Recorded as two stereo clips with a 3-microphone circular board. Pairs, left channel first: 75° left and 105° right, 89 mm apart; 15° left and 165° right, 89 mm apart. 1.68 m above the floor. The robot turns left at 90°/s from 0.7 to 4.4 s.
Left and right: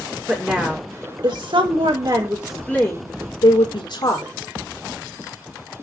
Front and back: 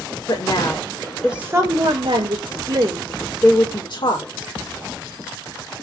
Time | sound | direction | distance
0.3 | a woman speaking | 30° right | 6 m